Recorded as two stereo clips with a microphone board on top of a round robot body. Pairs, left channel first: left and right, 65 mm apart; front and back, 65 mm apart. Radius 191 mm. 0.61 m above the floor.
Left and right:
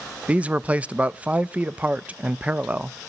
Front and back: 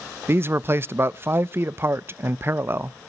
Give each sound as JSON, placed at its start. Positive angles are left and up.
{"t": 0.3, "sound": "a man speaking", "azimuth_deg": -150, "distance_m": 0.6}